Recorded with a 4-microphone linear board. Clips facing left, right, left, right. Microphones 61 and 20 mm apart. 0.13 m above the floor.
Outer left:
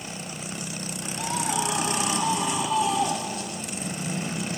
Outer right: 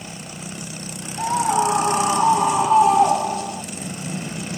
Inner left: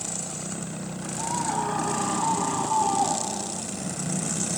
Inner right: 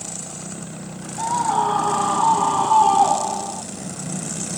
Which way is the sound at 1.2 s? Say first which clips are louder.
Outer right 9 dB, inner right 8 dB; 35° right (ahead or behind).